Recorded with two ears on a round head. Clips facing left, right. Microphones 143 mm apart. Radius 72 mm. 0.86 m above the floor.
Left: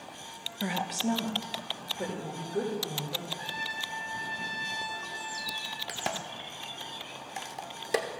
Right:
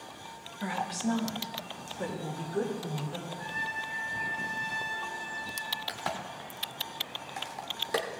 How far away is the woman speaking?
About 0.6 m.